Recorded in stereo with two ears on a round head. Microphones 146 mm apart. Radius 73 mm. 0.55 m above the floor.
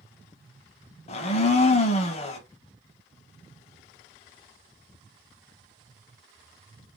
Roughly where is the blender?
Left.